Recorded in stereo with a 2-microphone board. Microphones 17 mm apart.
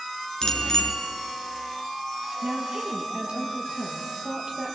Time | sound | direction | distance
0.4 | a bicycle bell | 35° left (ahead or behind) | 3.5 m
2.4 | a woman speaking | 50° right (ahead or behind) | 7 m